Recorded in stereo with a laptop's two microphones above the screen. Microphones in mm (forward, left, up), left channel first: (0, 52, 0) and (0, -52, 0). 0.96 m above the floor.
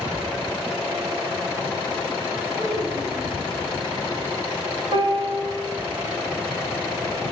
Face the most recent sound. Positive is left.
turn(degrees=-55)  # may be behind; listen again after turning